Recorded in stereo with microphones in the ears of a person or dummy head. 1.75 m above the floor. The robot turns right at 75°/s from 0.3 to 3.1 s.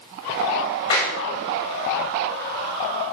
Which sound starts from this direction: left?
A clap, at 0.9 s.